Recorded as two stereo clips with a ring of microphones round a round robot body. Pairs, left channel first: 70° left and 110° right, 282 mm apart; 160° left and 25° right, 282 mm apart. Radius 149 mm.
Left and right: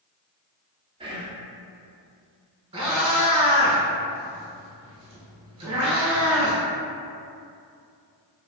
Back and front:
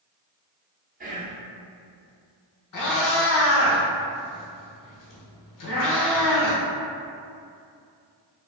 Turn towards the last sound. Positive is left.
turn(degrees=175)